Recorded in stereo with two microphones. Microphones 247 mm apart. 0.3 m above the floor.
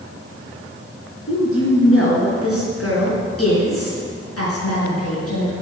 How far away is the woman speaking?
About 4.5 m.